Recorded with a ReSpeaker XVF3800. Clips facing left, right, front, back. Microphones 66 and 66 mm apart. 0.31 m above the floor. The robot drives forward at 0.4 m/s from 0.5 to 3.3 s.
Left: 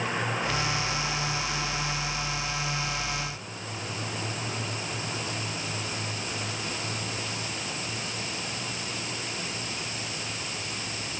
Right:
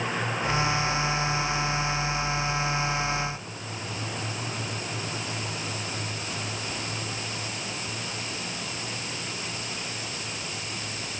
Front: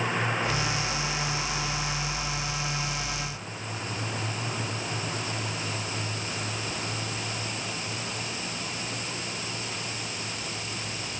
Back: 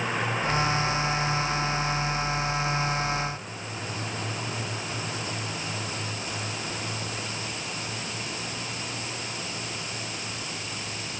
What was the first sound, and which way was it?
Only background noise.